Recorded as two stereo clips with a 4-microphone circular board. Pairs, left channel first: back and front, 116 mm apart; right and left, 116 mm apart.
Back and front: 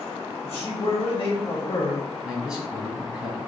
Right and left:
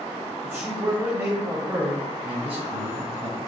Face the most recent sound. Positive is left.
turn(degrees=85)